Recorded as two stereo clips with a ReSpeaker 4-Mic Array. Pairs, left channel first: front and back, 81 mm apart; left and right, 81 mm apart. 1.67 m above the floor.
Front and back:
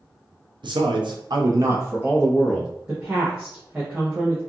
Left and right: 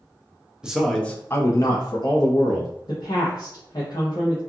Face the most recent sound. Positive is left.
turn(degrees=110)